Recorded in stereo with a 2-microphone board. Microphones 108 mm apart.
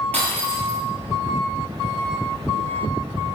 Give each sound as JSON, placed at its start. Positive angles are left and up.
{"t": 0.1, "sound": "breaking glass", "side_deg": 15, "distance_m": 6.5}